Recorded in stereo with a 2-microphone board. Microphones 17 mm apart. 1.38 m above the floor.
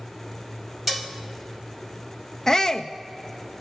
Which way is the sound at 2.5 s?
20° left (ahead or behind).